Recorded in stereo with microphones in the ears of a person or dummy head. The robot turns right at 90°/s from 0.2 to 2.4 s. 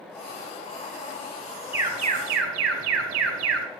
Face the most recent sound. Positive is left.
turn(degrees=-110)